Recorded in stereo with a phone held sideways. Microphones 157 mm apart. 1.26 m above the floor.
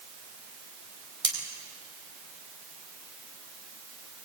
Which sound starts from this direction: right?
Cutlery clinking, at 1.2 s.